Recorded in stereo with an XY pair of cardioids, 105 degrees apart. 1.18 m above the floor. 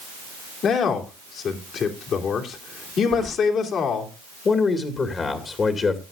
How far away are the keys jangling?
About 1.0 m.